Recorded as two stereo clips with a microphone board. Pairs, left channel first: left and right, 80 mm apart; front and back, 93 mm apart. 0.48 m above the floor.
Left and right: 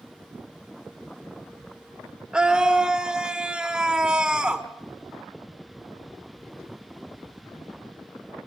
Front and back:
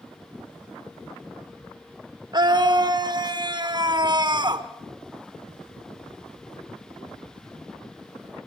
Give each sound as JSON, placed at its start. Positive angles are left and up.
{"t": 2.3, "sound": "a scream", "azimuth_deg": -170, "distance_m": 1.0}